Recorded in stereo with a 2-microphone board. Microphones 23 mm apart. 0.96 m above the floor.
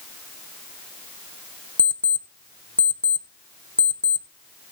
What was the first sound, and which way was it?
An alarm clock, 70° left (ahead or behind).